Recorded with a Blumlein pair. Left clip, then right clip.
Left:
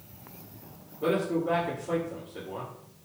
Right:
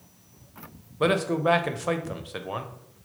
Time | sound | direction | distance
1.0 | a man speaking | 45° right | 0.5 m